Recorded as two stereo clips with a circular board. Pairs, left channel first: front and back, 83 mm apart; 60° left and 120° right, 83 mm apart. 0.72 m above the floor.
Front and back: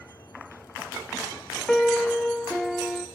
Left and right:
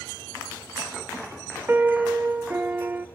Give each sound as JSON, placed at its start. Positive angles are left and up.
{"t": 1.7, "sound": "a piano", "azimuth_deg": -80, "distance_m": 0.7}